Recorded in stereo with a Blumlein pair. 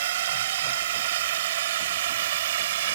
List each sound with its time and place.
0.0 s a drone: 55° right